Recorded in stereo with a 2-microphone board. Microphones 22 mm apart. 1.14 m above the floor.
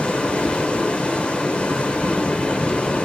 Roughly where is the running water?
Left.